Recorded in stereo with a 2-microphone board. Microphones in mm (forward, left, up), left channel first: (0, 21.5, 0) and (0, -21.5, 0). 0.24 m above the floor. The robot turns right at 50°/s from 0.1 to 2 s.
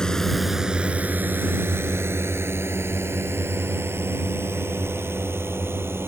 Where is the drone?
15° left (ahead or behind); by 6.1 s 65° right (ahead or behind).